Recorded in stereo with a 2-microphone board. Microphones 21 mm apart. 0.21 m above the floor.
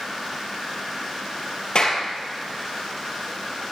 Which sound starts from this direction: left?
A clap, at 1.8 s.